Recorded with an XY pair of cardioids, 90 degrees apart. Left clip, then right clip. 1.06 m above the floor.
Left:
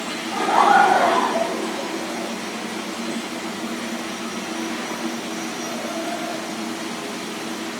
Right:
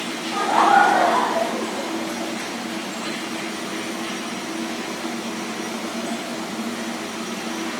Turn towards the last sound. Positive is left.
turn(degrees=30)